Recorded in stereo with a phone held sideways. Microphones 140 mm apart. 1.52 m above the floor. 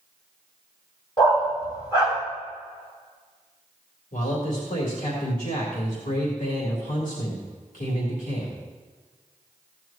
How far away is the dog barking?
About 3.5 m.